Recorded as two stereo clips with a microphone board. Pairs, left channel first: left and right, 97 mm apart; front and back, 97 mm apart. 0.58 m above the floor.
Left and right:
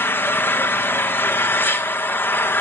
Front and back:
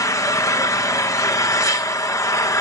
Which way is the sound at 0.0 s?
35° left.